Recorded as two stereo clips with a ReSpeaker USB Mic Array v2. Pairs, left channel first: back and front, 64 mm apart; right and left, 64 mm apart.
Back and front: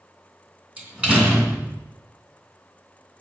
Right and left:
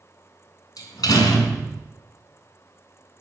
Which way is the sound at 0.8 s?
70° right.